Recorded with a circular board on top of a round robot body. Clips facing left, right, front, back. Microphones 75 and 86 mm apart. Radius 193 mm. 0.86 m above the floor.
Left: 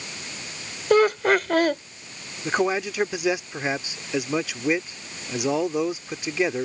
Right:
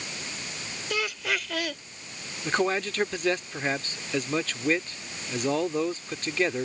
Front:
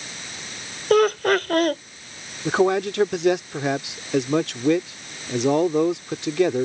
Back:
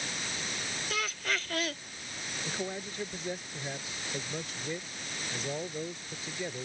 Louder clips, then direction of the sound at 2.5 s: Left 3 dB, front 20 dB; 10° left.